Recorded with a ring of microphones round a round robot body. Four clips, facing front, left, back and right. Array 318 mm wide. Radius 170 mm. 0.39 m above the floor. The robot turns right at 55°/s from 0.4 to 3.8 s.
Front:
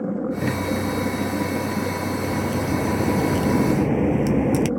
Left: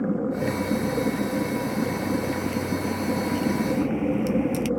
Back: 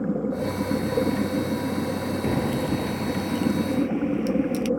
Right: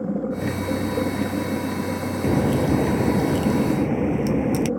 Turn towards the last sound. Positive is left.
turn(degrees=-20)